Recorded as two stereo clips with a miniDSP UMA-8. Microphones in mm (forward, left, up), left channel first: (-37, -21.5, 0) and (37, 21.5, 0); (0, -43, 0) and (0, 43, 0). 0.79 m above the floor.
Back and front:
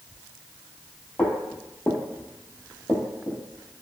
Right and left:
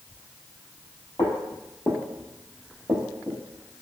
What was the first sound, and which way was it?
Footsteps, 75° right.